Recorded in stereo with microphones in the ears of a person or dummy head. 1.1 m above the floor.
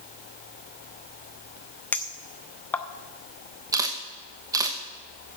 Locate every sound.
1.9 s a clink: 15° left (ahead or behind), 0.6 m
3.7 s a camera shutter: 15° right (ahead or behind), 0.9 m